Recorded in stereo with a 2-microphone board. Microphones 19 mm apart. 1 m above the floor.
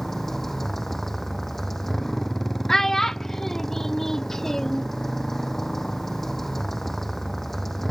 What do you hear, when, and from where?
0.0 s a motorcycle: 15° left (ahead or behind)
2.7 s a child speaking: 25° left (ahead or behind)